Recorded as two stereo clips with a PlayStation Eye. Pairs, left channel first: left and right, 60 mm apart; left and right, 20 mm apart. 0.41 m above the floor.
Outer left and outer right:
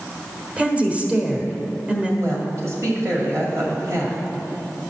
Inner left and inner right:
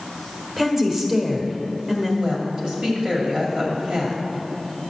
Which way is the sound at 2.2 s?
55° right (ahead or behind).